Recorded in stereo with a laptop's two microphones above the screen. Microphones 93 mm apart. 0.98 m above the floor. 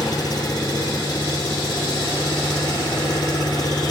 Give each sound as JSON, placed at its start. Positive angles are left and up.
{"t": 0.0, "sound": "an engine running", "side_deg": 45, "distance_m": 2.0}